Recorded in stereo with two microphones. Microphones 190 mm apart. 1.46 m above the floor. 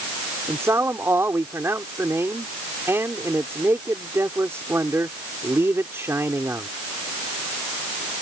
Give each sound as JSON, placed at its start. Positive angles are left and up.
{"t": 0.5, "sound": "a man speaking", "side_deg": -15}